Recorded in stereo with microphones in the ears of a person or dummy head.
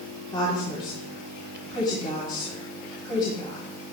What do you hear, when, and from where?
0.3 s a woman speaking: 30° left (ahead or behind), 3.5 m